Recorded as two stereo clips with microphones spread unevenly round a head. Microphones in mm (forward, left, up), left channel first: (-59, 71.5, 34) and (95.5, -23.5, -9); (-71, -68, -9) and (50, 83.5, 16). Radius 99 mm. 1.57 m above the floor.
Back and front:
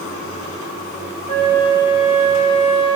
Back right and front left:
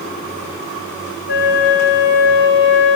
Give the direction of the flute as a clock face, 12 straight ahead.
5 o'clock.